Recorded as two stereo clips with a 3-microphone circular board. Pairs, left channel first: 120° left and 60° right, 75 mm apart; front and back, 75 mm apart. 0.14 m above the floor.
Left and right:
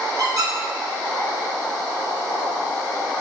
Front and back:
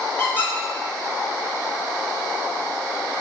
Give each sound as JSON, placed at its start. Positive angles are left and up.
{"t": 0.2, "sound": "a squeak", "azimuth_deg": -55, "distance_m": 1.1}